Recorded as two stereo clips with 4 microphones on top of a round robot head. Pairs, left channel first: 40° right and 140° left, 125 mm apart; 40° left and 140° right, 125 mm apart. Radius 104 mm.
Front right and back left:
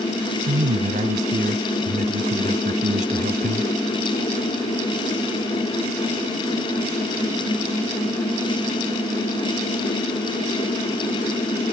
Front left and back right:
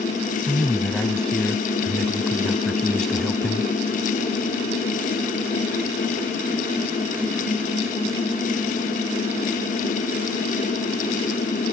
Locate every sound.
0.5 s a man speaking: 125° left